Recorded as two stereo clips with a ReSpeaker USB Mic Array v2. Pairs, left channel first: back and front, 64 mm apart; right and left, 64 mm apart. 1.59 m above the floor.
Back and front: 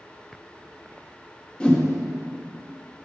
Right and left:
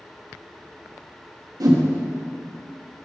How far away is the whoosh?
About 1.0 m.